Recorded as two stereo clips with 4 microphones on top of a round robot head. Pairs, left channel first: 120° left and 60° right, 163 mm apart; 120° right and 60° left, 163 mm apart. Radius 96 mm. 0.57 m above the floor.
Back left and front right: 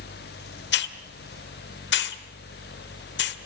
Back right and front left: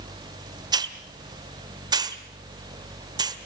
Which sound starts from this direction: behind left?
A hiss, at 0.7 s.